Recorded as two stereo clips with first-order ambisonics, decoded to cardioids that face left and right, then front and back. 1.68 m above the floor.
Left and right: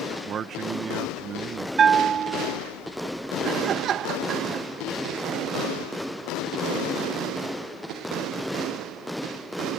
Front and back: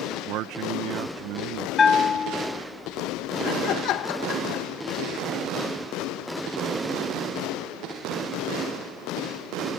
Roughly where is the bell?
Ahead right.